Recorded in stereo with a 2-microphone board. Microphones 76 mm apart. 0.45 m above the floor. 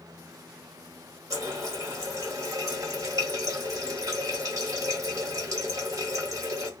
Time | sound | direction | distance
1.3 | a running tap | 50° right (ahead or behind) | 1.0 m